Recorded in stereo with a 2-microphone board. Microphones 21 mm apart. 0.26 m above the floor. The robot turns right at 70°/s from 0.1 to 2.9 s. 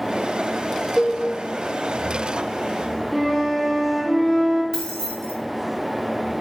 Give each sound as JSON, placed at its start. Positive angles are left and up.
{"t": 1.0, "sound": "a cowbell", "side_deg": -35, "distance_m": 0.5}
{"t": 3.1, "sound": "a flute", "side_deg": -15, "distance_m": 1.0}
{"t": 4.7, "sound": "keys jangling", "side_deg": 35, "distance_m": 1.4}